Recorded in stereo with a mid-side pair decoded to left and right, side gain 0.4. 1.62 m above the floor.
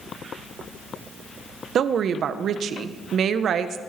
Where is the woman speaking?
65° right, 1.2 m.